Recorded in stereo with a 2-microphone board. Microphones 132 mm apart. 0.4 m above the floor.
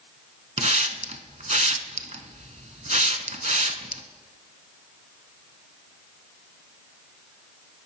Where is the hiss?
65° right (ahead or behind), 0.6 m.